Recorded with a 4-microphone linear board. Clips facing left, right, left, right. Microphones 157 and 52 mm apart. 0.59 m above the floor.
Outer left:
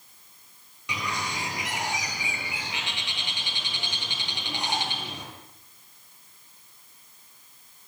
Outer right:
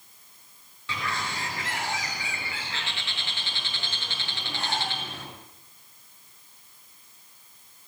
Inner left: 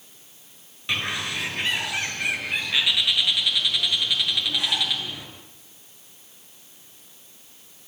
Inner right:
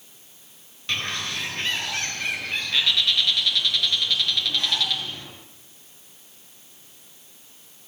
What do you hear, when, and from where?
0.9 s a bird: 15° left (ahead or behind), 6 m